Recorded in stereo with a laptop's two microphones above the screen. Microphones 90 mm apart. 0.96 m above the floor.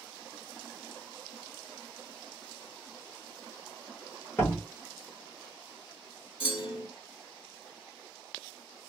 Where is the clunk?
70° left (ahead or behind), 1.4 m.